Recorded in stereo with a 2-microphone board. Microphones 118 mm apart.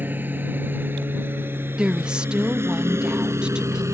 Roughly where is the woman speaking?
Centre.